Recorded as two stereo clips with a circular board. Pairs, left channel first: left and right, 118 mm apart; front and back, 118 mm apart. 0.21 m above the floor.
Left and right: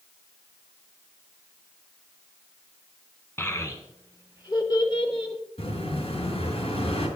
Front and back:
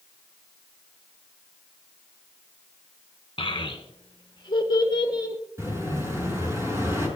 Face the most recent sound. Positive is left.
turn(degrees=115)